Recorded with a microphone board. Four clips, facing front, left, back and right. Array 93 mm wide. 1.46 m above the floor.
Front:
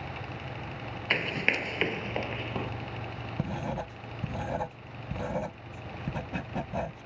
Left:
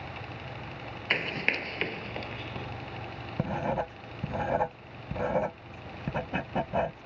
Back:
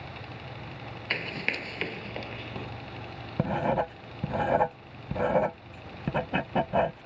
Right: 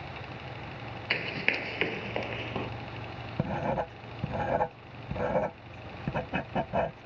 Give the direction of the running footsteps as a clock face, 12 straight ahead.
11 o'clock.